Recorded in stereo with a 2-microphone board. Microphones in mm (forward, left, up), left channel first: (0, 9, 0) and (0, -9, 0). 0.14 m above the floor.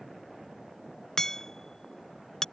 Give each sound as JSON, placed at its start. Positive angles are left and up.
{"t": 1.2, "sound": "hammering", "side_deg": 40}